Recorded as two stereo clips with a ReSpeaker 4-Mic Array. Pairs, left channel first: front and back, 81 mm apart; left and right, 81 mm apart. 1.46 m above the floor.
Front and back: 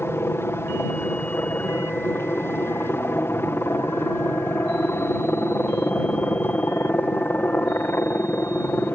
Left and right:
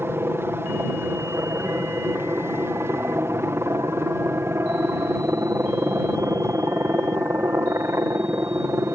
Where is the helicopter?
45° right; by 8.9 s 50° right.